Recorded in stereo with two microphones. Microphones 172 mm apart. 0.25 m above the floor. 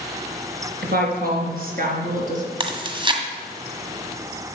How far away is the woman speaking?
About 3.5 m.